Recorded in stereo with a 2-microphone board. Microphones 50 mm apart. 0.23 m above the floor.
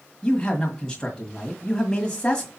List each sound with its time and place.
0.2 s a man speaking: 15° left (ahead or behind), 1.4 m